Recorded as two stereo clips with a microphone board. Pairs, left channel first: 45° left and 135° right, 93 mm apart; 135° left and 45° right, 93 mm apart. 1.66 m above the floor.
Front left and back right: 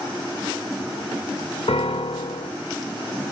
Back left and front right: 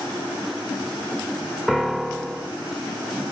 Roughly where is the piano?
Ahead left.